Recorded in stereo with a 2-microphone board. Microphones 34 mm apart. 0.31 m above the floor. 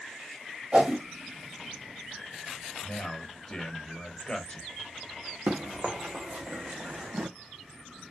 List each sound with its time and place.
0.7 s a whoosh: 35° right (ahead or behind), 0.9 m
2.8 s a man speaking: 25° left (ahead or behind), 1.0 m
5.5 s running footsteps: 45° right (ahead or behind), 1.5 m; by 7.3 s 55° right (ahead or behind), 0.6 m